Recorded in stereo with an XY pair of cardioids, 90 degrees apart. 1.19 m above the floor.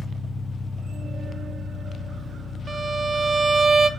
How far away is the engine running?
About 0.7 m.